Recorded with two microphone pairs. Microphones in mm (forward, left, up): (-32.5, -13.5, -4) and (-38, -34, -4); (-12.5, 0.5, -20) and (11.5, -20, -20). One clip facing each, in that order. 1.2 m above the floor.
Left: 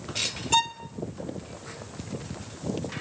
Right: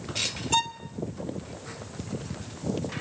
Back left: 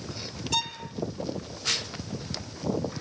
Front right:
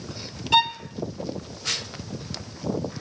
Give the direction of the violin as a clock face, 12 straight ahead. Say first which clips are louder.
Left 3 dB, front right 10 dB; 12 o'clock.